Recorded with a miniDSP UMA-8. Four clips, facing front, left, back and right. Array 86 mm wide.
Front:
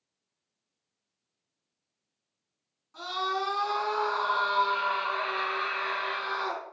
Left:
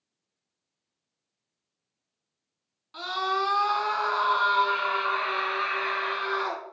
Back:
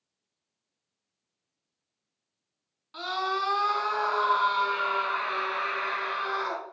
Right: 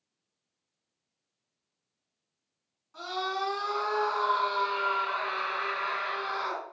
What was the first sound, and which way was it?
A scream, 135° left.